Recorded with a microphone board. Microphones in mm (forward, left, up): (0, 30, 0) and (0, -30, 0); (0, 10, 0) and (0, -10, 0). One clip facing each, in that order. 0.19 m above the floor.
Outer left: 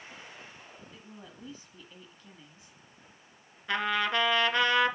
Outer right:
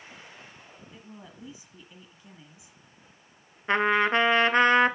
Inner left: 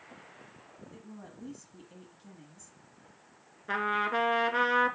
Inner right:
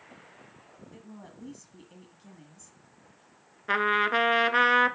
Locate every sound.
0.9 s a woman speaking: 15° right (ahead or behind), 1.2 m
3.7 s a trumpet: 35° right (ahead or behind), 0.7 m